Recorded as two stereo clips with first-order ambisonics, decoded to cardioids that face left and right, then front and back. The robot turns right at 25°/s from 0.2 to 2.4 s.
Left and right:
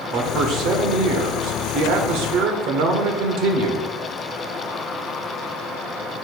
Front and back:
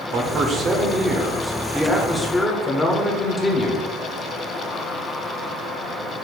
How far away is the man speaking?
About 1.2 m.